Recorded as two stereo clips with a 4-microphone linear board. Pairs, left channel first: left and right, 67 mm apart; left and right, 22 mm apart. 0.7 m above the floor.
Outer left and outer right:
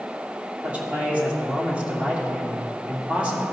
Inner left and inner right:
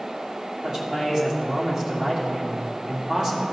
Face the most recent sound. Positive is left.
turn(degrees=-20)  # may be behind; listen again after turning